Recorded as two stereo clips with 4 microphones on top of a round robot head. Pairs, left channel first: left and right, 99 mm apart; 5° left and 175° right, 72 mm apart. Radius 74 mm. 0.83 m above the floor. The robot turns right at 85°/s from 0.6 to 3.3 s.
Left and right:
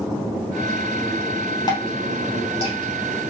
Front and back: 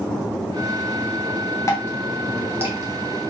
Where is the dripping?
45° left, 2.5 m; by 3.3 s 175° right, 2.5 m.